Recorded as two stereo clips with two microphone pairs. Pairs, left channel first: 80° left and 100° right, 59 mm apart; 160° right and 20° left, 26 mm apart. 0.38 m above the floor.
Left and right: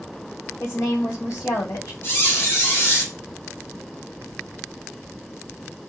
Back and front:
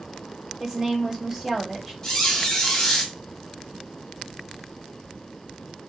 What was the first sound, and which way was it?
A woman speaking, 90° left.